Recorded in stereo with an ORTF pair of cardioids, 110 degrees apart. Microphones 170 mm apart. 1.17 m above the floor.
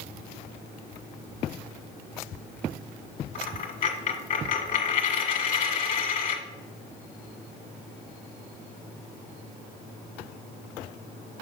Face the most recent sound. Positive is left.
turn(degrees=50)